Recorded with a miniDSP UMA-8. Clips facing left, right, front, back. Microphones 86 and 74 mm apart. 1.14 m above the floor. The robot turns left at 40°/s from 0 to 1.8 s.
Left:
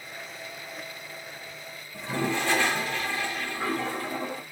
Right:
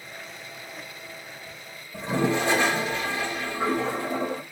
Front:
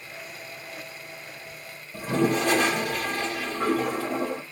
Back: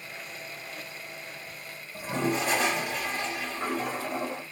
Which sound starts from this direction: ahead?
A toilet flushing, at 1.9 s.